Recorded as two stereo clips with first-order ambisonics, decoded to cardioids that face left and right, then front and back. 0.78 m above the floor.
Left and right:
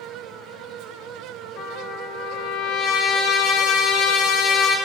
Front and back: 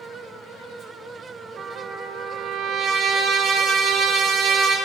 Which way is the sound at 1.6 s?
125° left.